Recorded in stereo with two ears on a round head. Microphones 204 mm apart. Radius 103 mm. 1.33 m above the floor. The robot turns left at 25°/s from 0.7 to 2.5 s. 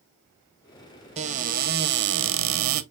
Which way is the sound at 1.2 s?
30° right.